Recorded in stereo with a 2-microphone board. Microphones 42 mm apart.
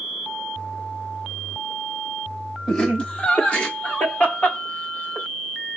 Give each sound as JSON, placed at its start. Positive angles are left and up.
{"t": 2.7, "sound": "laughter", "side_deg": 20, "distance_m": 1.1}